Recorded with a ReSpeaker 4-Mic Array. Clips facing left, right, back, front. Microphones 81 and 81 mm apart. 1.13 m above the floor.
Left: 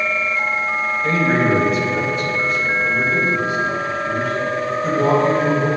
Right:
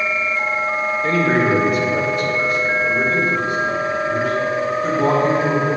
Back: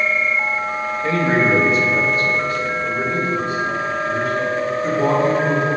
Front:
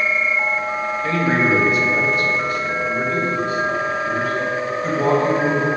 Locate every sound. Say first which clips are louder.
1.0 s a man speaking: even, back 2 dB; 125° right, 1.6 m; by 5.7 s 120° right, 4 m